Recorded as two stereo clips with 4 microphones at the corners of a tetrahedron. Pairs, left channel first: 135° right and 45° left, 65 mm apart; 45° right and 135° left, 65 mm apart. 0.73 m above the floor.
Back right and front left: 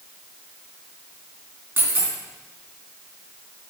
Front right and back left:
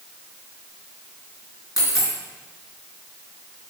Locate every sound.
1.8 s a dropped coin: 15° right, 3 m